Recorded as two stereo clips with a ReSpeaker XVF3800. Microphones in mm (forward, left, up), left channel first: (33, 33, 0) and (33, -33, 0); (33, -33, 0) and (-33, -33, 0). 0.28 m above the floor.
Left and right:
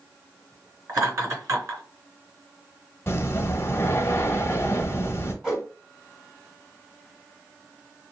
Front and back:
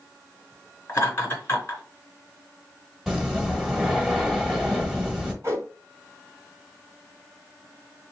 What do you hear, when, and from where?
0.9 s laughter: 55° right, 3 m
3.1 s breathing: 105° left, 1.1 m
5.4 s a whoosh: 160° right, 2 m